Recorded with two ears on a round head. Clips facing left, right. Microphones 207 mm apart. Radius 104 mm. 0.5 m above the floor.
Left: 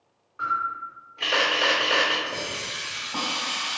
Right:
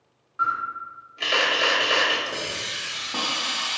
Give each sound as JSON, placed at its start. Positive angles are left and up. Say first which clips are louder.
{"t": 0.4, "sound": "a camera shutter", "louder": "right 1 dB", "side_deg": -15, "distance_m": 1.5}
{"t": 2.3, "sound": "a hiss", "louder": "right 1 dB", "side_deg": -35, "distance_m": 1.0}